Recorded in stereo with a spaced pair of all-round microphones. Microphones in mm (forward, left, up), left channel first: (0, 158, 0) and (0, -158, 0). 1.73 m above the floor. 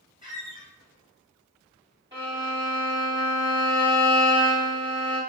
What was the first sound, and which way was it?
A squeak, 15° right (ahead or behind).